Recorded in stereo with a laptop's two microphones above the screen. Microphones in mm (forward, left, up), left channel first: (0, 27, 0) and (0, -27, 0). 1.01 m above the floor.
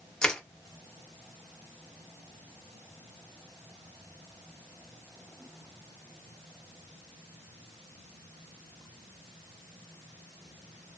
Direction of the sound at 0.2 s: 20° left (ahead or behind).